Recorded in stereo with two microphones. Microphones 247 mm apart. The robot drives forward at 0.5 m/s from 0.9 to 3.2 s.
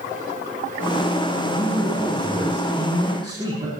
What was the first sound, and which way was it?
A man speaking, 15° right (ahead or behind).